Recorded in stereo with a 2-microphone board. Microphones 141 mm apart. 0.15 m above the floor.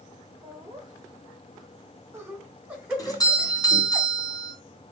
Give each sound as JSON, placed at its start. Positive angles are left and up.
{"t": 0.4, "sound": "laughter", "side_deg": -40, "distance_m": 2.5}
{"t": 3.0, "sound": "a doorbell", "side_deg": 30, "distance_m": 2.5}